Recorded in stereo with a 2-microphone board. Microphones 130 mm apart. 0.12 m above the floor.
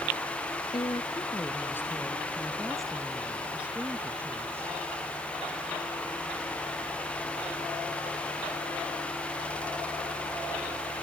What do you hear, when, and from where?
0.7 s a woman speaking: 35° left (ahead or behind); by 4.8 s 20° right (ahead or behind)